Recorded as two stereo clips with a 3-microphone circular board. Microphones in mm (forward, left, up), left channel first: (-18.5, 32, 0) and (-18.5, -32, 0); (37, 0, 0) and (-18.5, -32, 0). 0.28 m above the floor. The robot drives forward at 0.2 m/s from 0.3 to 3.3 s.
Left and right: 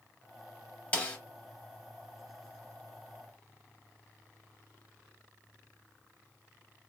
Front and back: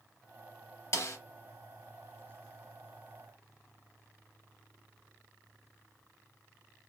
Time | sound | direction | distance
0.9 | a snare drum | 30° left | 0.7 m